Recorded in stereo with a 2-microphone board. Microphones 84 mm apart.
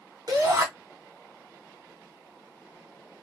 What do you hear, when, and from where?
0.3 s a shout: 40° right (ahead or behind), 1.3 m